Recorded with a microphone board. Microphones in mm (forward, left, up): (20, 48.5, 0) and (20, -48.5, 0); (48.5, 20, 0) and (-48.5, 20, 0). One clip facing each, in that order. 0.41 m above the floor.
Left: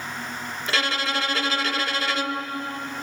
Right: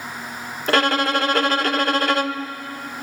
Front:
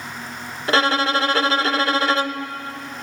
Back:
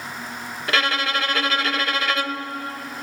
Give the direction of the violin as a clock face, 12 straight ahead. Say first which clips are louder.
Right 8 dB, front 5 dB; 2 o'clock.